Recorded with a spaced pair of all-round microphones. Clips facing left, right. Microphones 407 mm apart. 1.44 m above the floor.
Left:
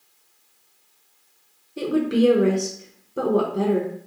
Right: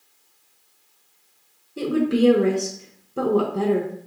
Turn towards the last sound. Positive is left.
turn(degrees=-5)  # may be behind; listen again after turning